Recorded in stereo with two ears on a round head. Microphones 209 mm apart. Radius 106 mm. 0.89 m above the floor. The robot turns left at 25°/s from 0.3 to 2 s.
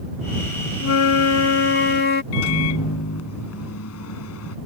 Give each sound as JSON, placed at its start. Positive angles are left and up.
{"t": 0.8, "sound": "a flute", "azimuth_deg": 75}
{"t": 2.3, "sound": "a microwave", "side_deg": 65}